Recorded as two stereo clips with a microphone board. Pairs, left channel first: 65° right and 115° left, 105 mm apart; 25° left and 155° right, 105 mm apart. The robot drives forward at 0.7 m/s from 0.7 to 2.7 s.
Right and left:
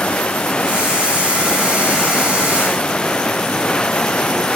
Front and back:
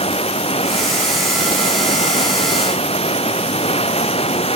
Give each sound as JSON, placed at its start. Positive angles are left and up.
{"t": 0.0, "sound": "running water", "azimuth_deg": 15}